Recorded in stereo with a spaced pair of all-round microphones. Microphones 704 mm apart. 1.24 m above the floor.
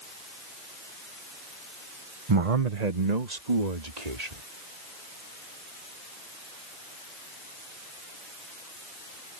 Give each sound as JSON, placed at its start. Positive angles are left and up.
{"t": 2.3, "sound": "a man speaking", "side_deg": -40}